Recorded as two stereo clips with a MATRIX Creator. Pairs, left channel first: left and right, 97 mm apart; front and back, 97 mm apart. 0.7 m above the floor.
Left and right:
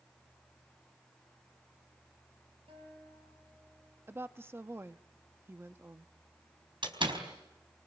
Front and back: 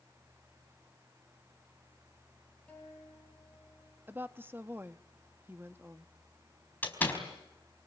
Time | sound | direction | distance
2.7 | a guitar | 75° right | 8.5 m
4.1 | a woman speaking | 130° right | 0.8 m
6.8 | a door slam | 70° right | 4 m